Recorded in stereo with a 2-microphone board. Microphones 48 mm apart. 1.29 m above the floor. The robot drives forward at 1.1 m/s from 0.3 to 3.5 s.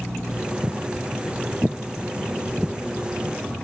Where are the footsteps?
20° right (ahead or behind); by 2.8 s 20° left (ahead or behind).